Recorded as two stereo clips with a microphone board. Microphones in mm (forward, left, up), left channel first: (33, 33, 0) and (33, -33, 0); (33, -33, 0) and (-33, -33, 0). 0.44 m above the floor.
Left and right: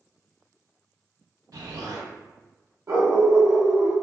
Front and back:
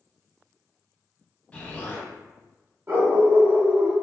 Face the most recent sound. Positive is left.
turn(degrees=-125)